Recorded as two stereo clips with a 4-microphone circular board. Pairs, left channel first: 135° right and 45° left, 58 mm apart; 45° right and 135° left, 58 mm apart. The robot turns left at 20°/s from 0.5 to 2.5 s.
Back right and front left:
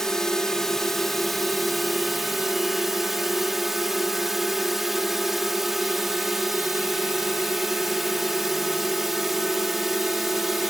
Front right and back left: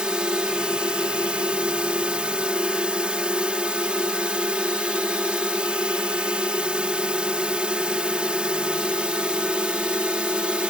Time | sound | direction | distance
0.0 | a drone | 160° left | ?